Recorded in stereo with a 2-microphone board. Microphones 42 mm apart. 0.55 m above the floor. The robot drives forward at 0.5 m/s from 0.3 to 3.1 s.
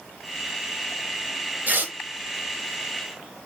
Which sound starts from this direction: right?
Tearing paper, at 1.7 s.